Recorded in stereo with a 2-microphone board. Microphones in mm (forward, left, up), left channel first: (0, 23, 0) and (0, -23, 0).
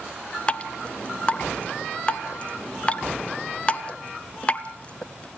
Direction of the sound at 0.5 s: 25° left (ahead or behind).